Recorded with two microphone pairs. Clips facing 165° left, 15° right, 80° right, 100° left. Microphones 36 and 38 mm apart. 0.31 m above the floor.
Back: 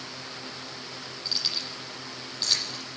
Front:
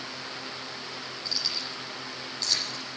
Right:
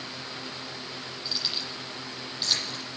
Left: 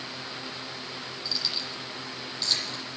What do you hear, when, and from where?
1.2 s keys jangling: 150° right, 8.5 m